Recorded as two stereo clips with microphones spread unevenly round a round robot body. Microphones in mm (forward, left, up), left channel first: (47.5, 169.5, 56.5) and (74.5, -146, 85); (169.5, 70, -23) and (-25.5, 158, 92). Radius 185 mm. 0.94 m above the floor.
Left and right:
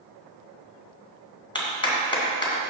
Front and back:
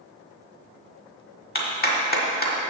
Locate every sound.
1.6 s a clap: 20° left, 2 m